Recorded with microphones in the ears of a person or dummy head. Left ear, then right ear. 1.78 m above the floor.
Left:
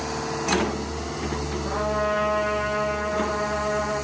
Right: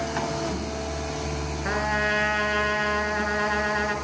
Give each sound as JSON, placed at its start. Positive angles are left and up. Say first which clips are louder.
{"t": 1.6, "sound": "a trumpet", "louder": "right 1 dB", "side_deg": -70, "distance_m": 6.5}